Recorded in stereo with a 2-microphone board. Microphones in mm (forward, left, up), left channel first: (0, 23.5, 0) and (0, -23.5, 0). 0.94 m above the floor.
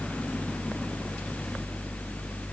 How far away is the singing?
No singing in this recording.